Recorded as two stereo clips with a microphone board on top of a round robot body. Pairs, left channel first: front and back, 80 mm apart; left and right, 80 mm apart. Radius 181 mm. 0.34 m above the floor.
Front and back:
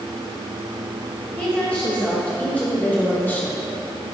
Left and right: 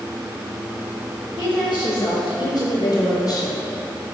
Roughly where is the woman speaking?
Left.